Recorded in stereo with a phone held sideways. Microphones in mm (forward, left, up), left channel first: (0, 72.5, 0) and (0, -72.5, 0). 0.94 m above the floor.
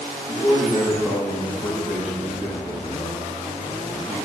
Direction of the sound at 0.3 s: 10° right (ahead or behind).